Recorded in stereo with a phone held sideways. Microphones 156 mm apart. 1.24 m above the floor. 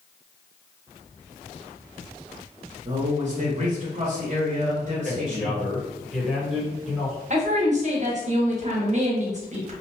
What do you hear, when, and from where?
2.9 s a man speaking: 50° right (ahead or behind), 0.8 m
5.0 s a man speaking: centre (ahead or behind), 1.1 m
7.3 s a woman speaking: 45° right (ahead or behind), 0.9 m